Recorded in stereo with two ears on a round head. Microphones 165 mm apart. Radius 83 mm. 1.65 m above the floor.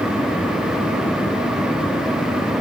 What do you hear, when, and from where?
Only background noise.